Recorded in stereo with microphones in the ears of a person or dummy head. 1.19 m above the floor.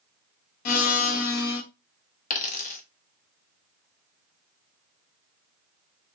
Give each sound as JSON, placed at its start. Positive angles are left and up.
{"t": 0.7, "sound": "a blender", "side_deg": 45, "distance_m": 0.9}
{"t": 2.3, "sound": "a dropped coin", "side_deg": 45, "distance_m": 0.9}